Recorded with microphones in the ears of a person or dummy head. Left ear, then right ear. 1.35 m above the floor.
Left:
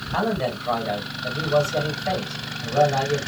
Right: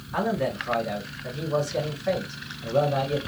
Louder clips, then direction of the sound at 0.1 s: Left 2 dB; 20° left (ahead or behind).